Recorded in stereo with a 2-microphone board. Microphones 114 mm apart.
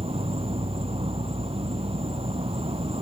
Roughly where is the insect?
Right.